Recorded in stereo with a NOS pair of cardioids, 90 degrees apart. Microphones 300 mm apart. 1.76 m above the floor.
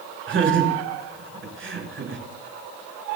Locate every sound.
0.3 s laughter: 40° right, 7 m